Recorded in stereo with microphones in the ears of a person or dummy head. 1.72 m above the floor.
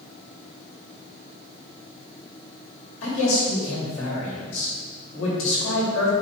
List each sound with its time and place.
3.0 s a man speaking: 80° left, 3 m